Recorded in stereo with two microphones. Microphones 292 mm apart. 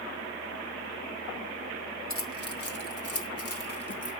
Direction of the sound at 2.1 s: 45° left (ahead or behind).